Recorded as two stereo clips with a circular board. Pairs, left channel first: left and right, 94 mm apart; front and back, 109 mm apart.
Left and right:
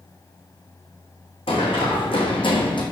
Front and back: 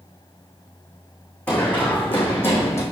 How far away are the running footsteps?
About 4 m.